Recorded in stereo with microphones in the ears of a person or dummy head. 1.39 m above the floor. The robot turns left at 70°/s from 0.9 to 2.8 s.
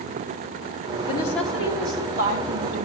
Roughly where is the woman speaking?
Ahead left.